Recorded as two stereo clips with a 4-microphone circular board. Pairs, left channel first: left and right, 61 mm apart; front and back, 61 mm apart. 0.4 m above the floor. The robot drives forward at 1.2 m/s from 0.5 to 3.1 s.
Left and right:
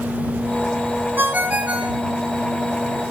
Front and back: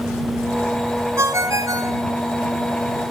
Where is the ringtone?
145° right, 1.1 m; by 2.0 s 160° right, 2.0 m.